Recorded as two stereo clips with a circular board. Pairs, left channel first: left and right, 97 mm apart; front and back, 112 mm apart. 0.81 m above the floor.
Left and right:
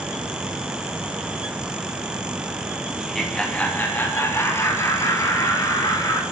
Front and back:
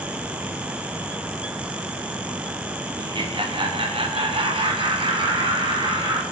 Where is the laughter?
175° right, 0.8 m; by 6.2 s 140° left, 2.5 m.